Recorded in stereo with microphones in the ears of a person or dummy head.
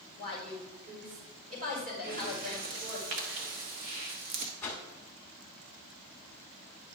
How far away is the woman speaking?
About 4 m.